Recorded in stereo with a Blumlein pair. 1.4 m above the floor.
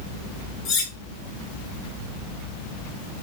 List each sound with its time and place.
0.7 s cutlery clinking: 30° left, 1.4 m